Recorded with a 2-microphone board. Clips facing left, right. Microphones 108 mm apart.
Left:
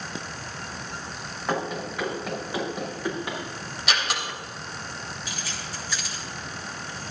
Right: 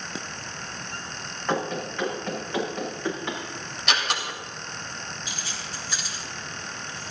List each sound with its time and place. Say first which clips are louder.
1.5 s running footsteps: right 1 dB; 5° left (ahead or behind), 6 m; by 3.4 s 15° left (ahead or behind), 8.5 m
3.9 s a door slam: right 1 dB; centre (ahead or behind), 3.5 m
5.3 s keys jangling: left 1 dB; 20° right (ahead or behind), 4 m